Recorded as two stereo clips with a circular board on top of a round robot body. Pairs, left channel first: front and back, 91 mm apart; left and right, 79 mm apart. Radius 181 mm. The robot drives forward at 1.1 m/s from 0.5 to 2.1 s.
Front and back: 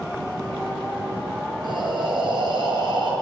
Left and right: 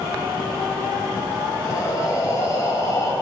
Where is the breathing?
140° left, 6.5 m; by 3.1 s 145° left, 6.5 m.